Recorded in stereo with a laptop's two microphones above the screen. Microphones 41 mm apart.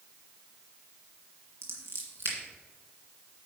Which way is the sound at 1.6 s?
75° right (ahead or behind).